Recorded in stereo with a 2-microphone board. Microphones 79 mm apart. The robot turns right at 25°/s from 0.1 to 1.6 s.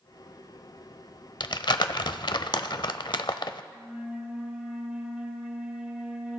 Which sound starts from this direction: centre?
A flute, at 3.7 s.